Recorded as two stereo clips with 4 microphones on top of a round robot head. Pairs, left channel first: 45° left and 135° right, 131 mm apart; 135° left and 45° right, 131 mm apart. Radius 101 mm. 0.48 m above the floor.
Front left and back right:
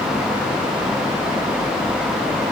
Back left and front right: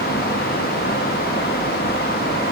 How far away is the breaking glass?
No breaking glass in this recording.